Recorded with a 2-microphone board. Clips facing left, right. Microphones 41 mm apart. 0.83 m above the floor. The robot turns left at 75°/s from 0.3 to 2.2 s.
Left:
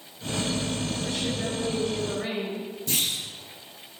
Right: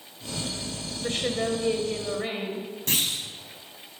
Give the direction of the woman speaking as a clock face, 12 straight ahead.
2 o'clock.